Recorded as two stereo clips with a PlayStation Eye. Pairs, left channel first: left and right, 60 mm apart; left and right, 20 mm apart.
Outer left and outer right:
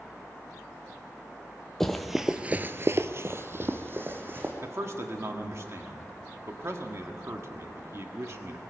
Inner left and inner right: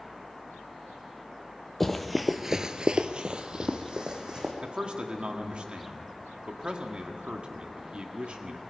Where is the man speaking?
50° right (ahead or behind), 1.7 m.